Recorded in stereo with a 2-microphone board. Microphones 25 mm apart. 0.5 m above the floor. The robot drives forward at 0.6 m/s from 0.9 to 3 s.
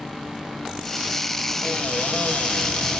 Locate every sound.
1.6 s a cupboard door: 75° left (ahead or behind), 1.1 m; by 3.0 s 60° left (ahead or behind), 1.2 m